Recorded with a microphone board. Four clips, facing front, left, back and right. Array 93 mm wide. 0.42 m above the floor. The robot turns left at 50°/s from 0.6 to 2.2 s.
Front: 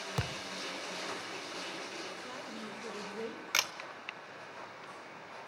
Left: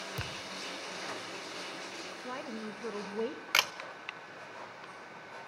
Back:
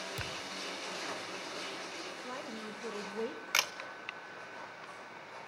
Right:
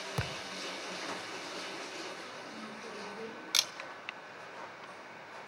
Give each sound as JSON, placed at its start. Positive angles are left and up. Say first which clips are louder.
{"t": 0.2, "sound": "a thud", "louder": "right 7 dB, front 4 dB", "azimuth_deg": -35, "distance_m": 0.6}
{"t": 2.2, "sound": "a woman speaking", "louder": "left 5 dB, back 1 dB", "azimuth_deg": 105, "distance_m": 1.8}
{"t": 3.5, "sound": "a camera shutter", "louder": "left 10 dB, back 1 dB", "azimuth_deg": 95, "distance_m": 1.2}